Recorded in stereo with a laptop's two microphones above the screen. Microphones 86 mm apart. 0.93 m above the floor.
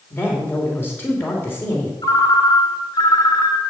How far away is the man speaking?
About 3 m.